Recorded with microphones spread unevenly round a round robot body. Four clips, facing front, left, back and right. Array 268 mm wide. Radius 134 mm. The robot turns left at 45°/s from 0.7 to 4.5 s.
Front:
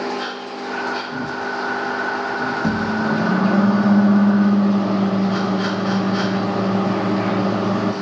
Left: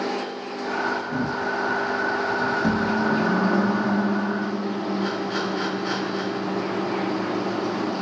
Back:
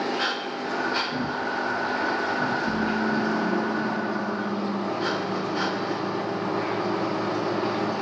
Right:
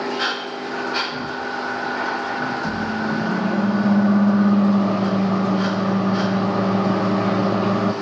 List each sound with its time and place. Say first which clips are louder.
2.6 s a microwave: left 2 dB, front 5 dB; 35° left, 1.7 m; by 7.9 s 50° right, 1.7 m